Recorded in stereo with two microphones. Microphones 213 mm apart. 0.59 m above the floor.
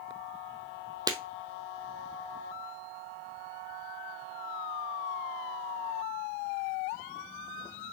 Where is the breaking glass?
20° right (ahead or behind), 1.0 m.